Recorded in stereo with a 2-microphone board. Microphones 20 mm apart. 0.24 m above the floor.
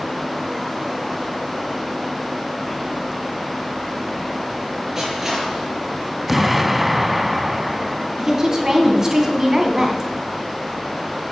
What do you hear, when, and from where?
5.0 s crushing: 15° right (ahead or behind), 5 m
6.3 s an explosion: 10° right (ahead or behind), 0.7 m
8.2 s a woman speaking: 20° right (ahead or behind), 2 m